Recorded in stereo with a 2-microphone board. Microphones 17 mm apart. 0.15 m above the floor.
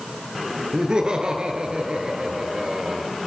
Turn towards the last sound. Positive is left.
turn(degrees=-55)  # may be behind; listen again after turning